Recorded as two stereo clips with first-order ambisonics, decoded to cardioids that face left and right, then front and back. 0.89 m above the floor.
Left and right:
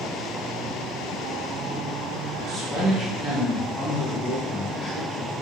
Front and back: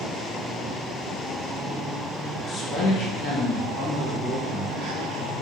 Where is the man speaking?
50° right, 1.0 m; by 5.3 s 15° left, 2 m.